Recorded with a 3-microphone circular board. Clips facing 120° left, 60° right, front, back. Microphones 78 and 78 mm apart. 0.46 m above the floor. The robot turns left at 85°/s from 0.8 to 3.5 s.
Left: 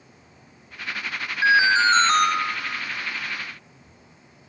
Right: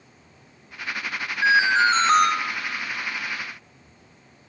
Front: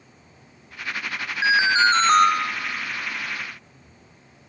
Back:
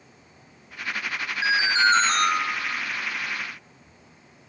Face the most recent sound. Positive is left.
turn(degrees=-130)